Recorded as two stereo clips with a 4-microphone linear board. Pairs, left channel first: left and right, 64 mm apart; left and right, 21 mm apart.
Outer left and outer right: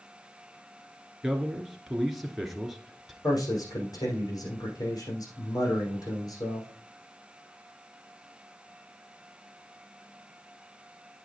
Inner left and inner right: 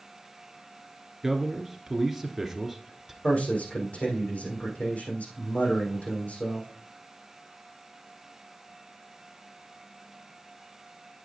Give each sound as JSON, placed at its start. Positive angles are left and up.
{"t": 1.2, "sound": "a man speaking", "side_deg": -5, "distance_m": 1.6}
{"t": 3.2, "sound": "a man speaking", "side_deg": 75, "distance_m": 5.5}